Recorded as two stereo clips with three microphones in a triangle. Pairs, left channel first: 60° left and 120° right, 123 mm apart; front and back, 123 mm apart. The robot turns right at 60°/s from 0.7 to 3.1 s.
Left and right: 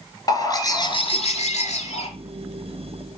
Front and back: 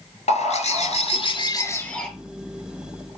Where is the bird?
5° left, 1.4 m; by 2.1 s 85° left, 1.4 m.